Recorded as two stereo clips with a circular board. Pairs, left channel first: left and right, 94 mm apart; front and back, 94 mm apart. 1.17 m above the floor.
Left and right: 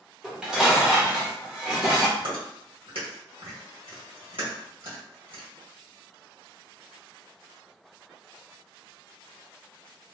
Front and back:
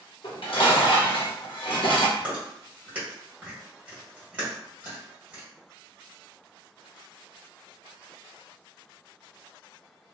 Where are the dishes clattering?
5° right, 0.8 m.